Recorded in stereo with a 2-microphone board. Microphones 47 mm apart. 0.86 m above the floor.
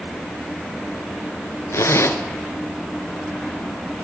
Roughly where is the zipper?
Left.